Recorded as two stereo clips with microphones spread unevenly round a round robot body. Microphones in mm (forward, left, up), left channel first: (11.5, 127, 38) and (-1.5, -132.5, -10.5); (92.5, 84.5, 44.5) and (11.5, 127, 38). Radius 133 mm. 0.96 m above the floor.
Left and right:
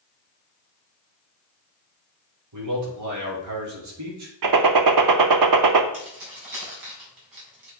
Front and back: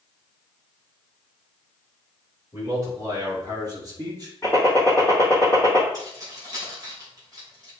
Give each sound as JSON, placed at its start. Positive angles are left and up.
{"t": 2.5, "sound": "a man speaking", "azimuth_deg": -85, "distance_m": 3.5}
{"t": 4.4, "sound": "a gunshot", "azimuth_deg": -95, "distance_m": 0.8}
{"t": 5.9, "sound": "keys jangling", "azimuth_deg": -95, "distance_m": 4.5}